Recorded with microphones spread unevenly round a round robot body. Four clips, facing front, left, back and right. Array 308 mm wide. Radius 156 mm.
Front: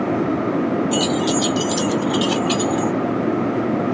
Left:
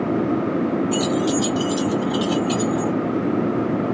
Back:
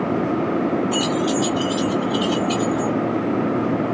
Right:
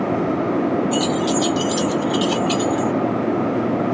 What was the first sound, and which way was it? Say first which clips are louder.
Keys jangling: right 1 dB, front 1 dB; 55° left.